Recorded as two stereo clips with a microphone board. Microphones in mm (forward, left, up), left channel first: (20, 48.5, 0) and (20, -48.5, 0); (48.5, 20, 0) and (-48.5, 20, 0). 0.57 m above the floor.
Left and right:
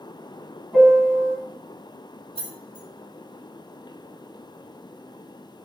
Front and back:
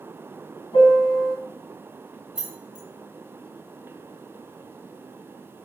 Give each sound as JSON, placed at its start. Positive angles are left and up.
{"t": 0.7, "sound": "a piano", "azimuth_deg": -15, "distance_m": 1.2}
{"t": 2.4, "sound": "keys jangling", "azimuth_deg": -100, "distance_m": 1.4}